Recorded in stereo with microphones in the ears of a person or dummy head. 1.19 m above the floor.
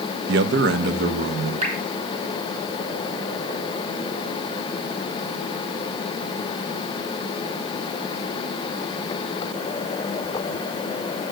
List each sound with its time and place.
0.3 s a man speaking: 70° right (ahead or behind), 0.8 m; by 1.5 s 65° right (ahead or behind), 2.5 m
1.6 s dripping: 40° right (ahead or behind), 3.5 m